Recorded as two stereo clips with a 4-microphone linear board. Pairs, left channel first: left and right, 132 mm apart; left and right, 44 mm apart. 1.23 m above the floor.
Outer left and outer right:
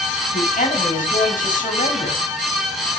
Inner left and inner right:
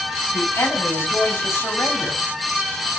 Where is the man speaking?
80° left, 9 m.